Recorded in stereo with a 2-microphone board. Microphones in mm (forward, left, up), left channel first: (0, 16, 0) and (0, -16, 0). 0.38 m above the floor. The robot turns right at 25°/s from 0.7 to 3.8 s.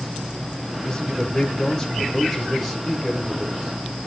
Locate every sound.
0.8 s a man speaking: 145° left, 1.5 m; by 4.1 s 140° right, 1.5 m